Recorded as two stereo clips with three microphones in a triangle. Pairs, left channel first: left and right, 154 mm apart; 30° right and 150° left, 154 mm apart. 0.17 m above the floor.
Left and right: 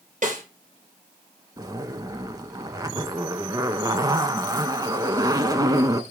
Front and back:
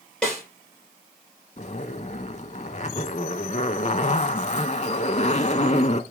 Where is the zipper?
35° right, 0.5 m.